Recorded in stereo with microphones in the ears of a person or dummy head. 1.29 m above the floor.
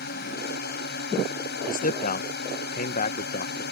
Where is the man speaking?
45° left (ahead or behind).